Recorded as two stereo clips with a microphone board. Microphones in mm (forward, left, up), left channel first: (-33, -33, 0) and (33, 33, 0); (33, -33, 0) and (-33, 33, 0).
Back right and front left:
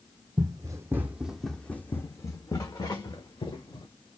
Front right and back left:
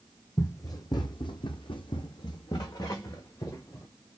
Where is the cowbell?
No cowbell in this recording.